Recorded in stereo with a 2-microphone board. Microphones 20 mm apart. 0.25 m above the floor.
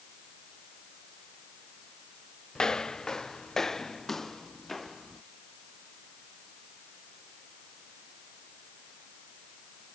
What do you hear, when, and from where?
2.5 s footsteps: 30° left (ahead or behind); by 5.2 s 5° left (ahead or behind)